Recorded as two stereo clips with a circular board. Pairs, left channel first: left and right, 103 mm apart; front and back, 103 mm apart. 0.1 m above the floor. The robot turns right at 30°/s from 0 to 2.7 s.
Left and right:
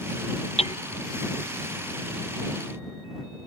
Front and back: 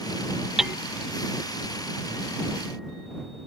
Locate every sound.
0.6 s hammering: 95° left; by 0.8 s 100° left